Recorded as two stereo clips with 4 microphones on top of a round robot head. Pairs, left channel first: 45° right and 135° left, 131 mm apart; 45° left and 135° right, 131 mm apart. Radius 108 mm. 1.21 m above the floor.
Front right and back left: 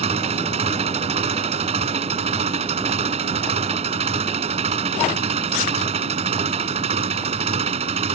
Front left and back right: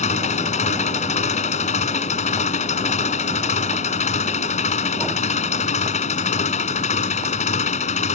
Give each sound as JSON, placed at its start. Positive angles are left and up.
{"t": 0.0, "sound": "an engine running", "azimuth_deg": 85}